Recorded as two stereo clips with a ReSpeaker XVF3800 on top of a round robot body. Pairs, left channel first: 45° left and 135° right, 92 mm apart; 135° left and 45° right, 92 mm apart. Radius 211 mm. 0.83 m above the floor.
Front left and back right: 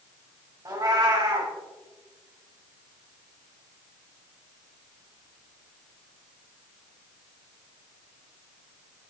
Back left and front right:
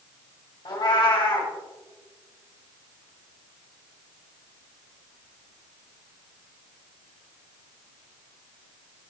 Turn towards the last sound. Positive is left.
turn(degrees=175)